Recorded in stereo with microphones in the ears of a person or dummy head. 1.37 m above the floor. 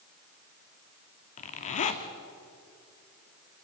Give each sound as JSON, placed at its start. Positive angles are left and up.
{"t": 1.4, "sound": "a zipper", "side_deg": 45, "distance_m": 1.7}